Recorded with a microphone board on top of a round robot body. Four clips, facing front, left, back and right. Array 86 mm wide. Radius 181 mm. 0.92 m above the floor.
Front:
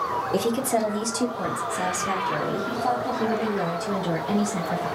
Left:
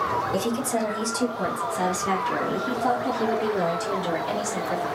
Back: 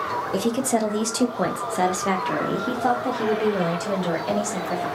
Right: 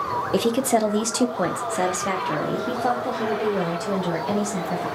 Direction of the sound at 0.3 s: 90° right.